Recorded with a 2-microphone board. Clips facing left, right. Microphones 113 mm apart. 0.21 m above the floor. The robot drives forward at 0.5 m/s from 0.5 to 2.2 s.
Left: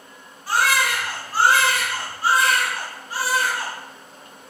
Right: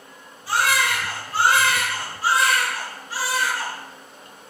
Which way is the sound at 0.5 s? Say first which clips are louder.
Left 1 dB; 45° left (ahead or behind).